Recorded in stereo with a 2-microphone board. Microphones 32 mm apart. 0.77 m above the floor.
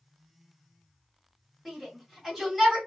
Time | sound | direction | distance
1.6 | a shout | centre (ahead or behind) | 1.9 m